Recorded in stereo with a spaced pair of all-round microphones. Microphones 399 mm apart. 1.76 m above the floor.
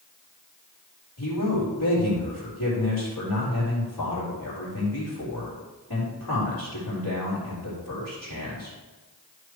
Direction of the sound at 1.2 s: 55° left (ahead or behind).